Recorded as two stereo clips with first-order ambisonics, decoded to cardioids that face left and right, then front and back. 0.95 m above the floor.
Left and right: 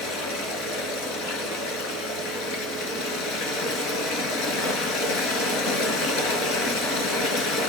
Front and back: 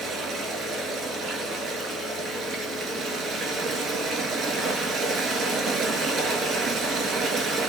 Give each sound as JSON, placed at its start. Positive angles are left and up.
{"t": 0.0, "sound": "running water", "azimuth_deg": 120, "distance_m": 4.0}